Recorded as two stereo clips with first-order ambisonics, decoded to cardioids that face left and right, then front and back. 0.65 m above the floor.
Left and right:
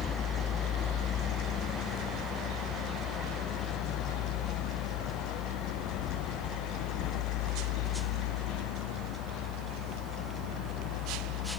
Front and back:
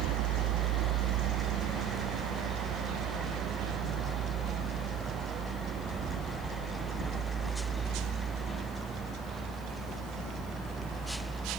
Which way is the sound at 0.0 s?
150° left.